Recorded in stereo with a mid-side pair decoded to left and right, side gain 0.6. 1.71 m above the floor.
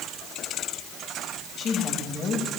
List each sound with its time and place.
1.6 s a woman speaking: 50° left, 10 m